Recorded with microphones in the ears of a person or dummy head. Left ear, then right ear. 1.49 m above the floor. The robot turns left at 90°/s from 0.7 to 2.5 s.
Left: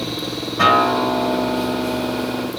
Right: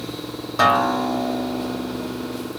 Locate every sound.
0.6 s a guitar: 105° right, 2.0 m; by 2.5 s 95° left, 2.0 m